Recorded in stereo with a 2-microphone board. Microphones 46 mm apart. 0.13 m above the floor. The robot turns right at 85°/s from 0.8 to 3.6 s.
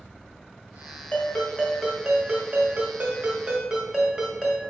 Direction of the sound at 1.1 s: 115° left.